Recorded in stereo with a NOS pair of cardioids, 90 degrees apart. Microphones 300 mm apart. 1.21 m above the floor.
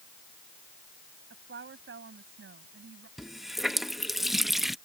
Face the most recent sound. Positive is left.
turn(degrees=0)